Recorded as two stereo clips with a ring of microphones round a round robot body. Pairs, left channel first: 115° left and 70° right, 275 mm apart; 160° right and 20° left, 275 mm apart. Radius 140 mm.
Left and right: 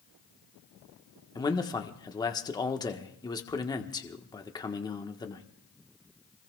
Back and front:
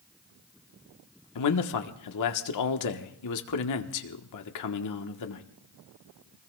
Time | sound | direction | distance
1.4 | a man speaking | 170° right | 1.4 m